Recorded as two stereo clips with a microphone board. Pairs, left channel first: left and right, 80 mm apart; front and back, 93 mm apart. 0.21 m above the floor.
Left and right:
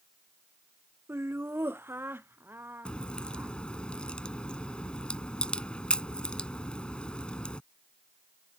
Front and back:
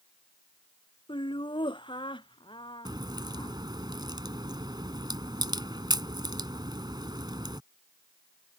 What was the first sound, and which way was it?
Laughter, 30° right.